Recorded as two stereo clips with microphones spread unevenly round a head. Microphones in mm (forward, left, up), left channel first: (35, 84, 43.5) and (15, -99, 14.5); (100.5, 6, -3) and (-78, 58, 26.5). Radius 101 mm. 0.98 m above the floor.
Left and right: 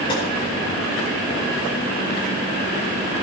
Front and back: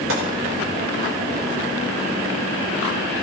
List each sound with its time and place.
0.1 s a gunshot: 155° left, 5 m